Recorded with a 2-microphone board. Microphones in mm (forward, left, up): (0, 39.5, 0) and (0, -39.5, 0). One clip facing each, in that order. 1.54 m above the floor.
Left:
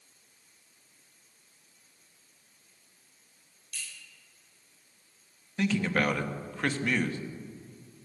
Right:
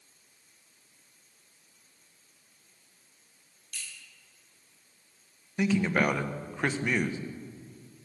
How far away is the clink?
About 7.5 m.